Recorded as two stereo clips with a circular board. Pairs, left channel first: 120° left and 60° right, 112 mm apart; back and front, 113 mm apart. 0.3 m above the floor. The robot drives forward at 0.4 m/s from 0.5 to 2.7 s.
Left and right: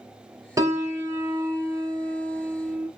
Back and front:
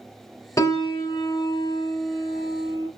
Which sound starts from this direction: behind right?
A piano, at 0.6 s.